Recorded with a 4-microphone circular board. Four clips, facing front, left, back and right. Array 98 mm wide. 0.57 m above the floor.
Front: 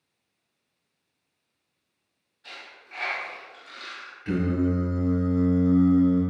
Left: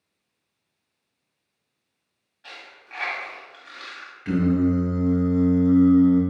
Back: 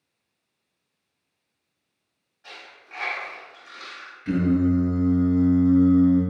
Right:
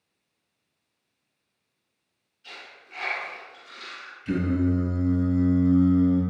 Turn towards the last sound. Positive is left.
turn(degrees=90)